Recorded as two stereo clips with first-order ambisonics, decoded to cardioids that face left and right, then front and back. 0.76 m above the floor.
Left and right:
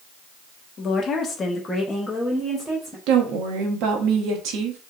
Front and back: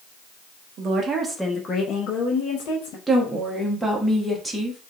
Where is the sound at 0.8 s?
145° left, 0.7 m; by 3.0 s 10° right, 1.0 m.